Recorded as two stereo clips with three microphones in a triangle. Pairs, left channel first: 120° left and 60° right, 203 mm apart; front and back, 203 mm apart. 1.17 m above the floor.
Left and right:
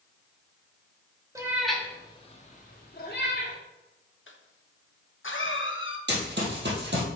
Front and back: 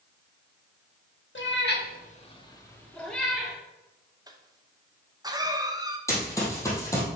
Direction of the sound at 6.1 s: 75° right.